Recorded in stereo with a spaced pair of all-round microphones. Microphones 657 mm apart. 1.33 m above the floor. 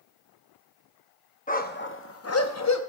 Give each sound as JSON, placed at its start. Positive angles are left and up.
{"t": 1.5, "sound": "a dog barking", "side_deg": 15, "distance_m": 0.7}